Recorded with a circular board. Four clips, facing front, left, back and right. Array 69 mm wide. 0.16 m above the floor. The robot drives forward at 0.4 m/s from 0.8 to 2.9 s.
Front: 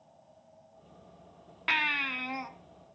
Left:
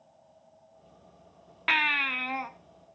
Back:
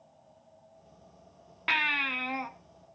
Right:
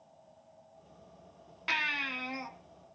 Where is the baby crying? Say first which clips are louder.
Left 7 dB, back 1 dB; 95° left, 1.2 m; by 2.5 s 120° left, 1.2 m.